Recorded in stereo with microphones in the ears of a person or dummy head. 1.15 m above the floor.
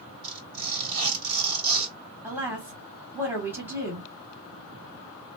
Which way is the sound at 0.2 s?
75° right (ahead or behind).